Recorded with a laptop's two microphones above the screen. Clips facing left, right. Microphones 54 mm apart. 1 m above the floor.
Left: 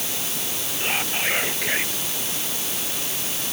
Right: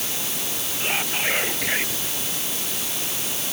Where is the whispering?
Centre (ahead or behind).